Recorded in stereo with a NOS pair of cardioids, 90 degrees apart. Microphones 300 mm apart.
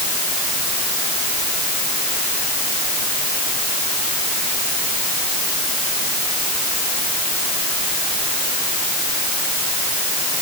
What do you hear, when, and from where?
Only background noise.